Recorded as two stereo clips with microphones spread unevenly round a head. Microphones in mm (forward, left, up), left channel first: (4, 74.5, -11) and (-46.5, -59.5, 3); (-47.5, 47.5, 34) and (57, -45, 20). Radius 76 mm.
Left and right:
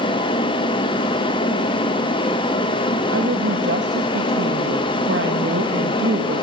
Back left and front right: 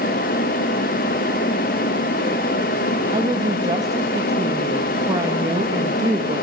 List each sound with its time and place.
3.1 s a woman speaking: 105° right, 1.7 m